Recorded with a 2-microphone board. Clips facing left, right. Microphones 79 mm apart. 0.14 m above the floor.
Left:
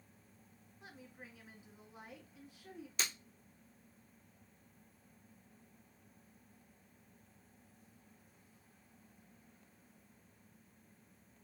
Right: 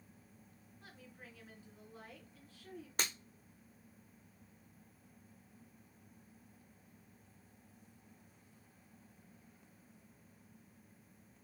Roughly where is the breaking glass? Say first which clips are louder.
Right 2 dB; right.